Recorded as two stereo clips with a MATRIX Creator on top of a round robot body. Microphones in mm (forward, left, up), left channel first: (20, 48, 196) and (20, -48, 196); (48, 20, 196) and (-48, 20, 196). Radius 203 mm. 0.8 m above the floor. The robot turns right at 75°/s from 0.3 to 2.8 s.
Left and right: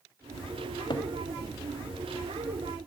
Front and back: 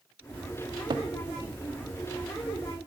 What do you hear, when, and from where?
0.9 s a cupboard door: 135° left, 1.1 m; by 1.1 s 145° left, 1.1 m